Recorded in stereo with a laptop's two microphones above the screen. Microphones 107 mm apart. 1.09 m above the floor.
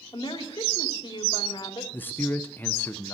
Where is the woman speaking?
45° left (ahead or behind), 2.5 m.